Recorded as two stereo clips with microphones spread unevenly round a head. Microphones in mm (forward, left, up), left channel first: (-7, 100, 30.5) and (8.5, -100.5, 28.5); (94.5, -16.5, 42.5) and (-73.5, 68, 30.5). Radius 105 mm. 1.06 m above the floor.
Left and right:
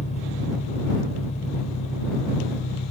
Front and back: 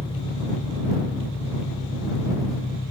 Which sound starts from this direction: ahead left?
An engine running, at 0.0 s.